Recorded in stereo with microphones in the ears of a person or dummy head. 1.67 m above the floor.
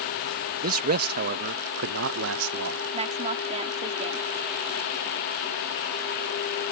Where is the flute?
No flute in this recording.